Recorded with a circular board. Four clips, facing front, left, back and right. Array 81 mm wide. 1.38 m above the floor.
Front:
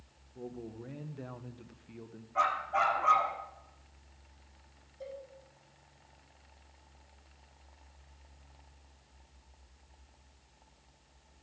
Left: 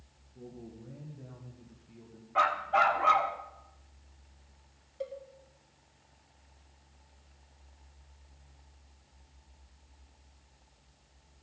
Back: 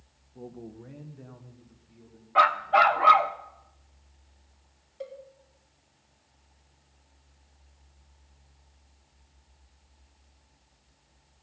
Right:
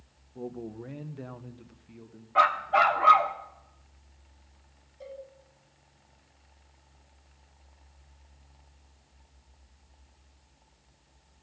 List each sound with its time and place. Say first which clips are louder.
0.3 s a man speaking: right 9 dB, back 1 dB; 105° right, 1.4 m; by 2.2 s 15° right, 1.5 m
2.4 s a dog barking: right 4 dB, back 9 dB; 165° right, 1.3 m
5.0 s a cowbell: left 5 dB, back 4 dB; 140° left, 3.5 m